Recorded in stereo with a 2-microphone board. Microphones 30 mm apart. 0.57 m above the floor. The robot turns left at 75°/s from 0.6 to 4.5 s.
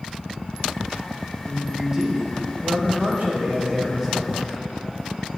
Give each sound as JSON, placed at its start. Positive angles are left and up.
{"t": 1.4, "sound": "a man speaking", "azimuth_deg": 30, "distance_m": 2.5}